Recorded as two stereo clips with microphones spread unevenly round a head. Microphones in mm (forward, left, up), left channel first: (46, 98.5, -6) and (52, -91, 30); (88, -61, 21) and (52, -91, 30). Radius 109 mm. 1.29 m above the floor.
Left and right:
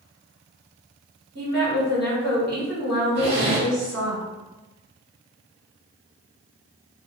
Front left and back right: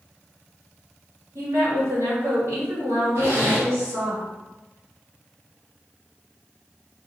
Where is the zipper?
135° right, 1.1 m.